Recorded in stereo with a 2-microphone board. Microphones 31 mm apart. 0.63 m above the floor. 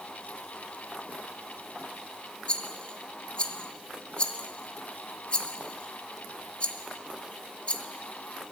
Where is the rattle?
40° left (ahead or behind), 0.6 m.